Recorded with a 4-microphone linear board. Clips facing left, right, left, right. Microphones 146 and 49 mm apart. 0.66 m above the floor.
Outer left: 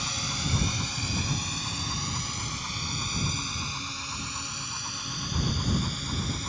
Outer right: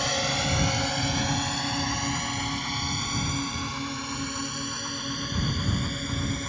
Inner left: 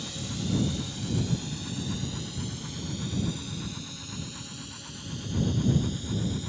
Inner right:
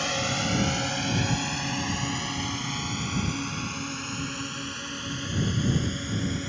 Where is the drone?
70° right (ahead or behind); by 6.5 s 55° right (ahead or behind).